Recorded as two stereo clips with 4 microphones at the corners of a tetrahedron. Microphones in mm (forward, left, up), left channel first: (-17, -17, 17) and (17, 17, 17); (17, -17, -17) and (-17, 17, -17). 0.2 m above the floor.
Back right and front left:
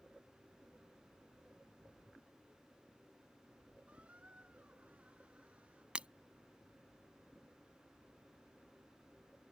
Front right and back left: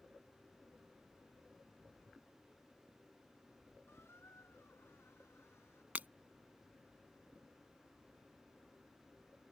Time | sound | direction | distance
3.9 | a squeak | 20° right | ?
6.0 | breaking glass | 100° left | ?